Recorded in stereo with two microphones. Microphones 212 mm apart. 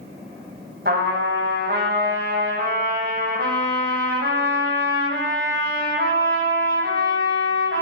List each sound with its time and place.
0.8 s a trumpet: 50° right (ahead or behind), 0.9 m